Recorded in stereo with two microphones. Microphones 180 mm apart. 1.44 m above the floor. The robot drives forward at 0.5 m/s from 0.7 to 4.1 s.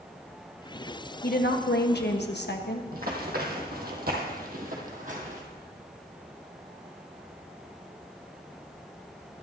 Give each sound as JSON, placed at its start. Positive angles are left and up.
{"t": 1.2, "sound": "a woman speaking", "side_deg": 55, "distance_m": 1.5}
{"t": 2.9, "sound": "running footsteps", "side_deg": -55, "distance_m": 3.0}